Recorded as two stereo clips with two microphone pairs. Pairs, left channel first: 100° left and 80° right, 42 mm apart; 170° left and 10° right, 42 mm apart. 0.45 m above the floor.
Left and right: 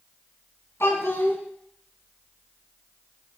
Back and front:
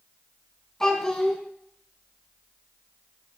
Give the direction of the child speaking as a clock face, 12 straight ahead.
9 o'clock.